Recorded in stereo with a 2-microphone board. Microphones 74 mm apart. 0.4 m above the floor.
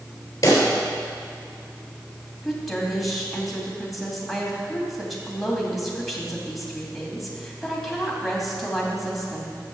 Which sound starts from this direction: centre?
A woman speaking, at 2.4 s.